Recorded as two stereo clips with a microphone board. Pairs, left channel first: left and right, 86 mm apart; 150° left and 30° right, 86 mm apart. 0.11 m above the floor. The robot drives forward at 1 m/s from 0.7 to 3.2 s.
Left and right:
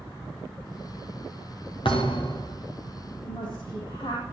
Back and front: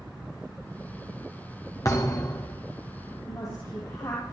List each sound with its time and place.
1.9 s a thud: 95° left, 4 m; by 2.6 s 105° left, 4 m
3.2 s a woman speaking: 100° left, 5.5 m